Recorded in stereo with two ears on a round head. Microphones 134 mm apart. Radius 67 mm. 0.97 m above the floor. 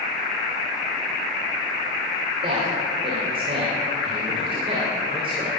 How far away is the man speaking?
About 3.5 m.